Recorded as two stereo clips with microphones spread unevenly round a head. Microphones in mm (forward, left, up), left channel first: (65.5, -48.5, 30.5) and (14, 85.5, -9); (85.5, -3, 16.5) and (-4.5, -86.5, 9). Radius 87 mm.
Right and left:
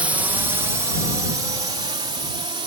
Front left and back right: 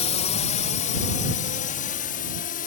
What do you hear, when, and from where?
0.0 s a drone: 45° left; by 2.7 s 55° left